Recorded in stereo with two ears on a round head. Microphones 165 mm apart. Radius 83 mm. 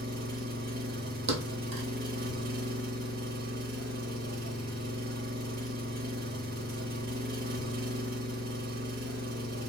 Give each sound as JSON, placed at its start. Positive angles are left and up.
{"t": 0.0, "sound": "an engine running", "side_deg": -50, "distance_m": 0.8}
{"t": 1.3, "sound": "a thud", "side_deg": -70, "distance_m": 1.7}